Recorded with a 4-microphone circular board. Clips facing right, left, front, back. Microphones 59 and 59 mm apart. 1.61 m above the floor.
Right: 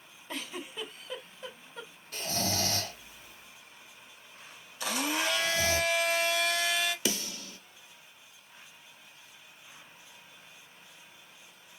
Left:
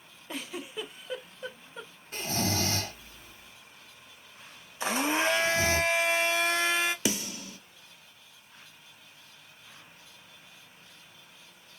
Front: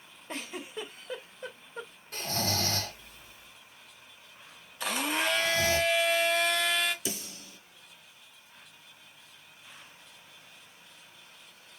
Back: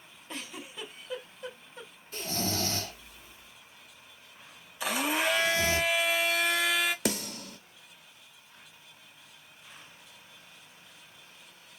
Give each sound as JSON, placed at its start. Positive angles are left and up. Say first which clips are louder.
{"t": 0.3, "sound": "a giggle", "louder": "left 2 dB, front 3 dB", "azimuth_deg": 20, "distance_m": 1.8}
{"t": 2.1, "sound": "snoring", "louder": "left 2 dB, front 1 dB", "azimuth_deg": 35, "distance_m": 2.5}
{"t": 4.8, "sound": "a blender", "louder": "left 4 dB, back 1 dB", "azimuth_deg": 100, "distance_m": 0.6}
{"t": 7.0, "sound": "a snare drum", "louder": "left 2 dB, back 7 dB", "azimuth_deg": 160, "distance_m": 0.8}